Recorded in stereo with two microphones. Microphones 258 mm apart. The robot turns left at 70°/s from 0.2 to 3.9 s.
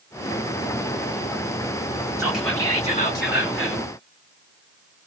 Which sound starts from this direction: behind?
Whispering, at 2.2 s.